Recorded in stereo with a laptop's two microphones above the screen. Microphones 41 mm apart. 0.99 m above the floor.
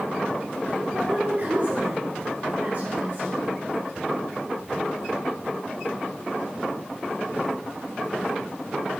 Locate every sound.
0.9 s a woman speaking: 55° right (ahead or behind), 3 m